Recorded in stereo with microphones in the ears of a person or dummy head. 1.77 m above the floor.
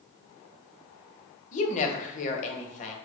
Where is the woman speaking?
35° left (ahead or behind), 1.1 m.